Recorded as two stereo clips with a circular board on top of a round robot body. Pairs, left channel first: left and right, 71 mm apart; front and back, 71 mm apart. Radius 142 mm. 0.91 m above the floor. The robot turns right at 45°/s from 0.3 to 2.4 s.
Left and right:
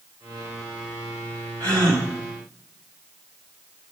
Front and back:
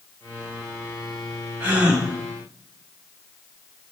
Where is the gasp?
120° right, 3.5 m; by 2.1 s 100° right, 3.5 m.